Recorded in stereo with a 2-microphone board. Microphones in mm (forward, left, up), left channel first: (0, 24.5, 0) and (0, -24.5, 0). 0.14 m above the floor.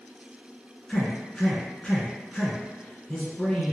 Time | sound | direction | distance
0.9 | a man speaking | 10° left (ahead or behind) | 1.2 m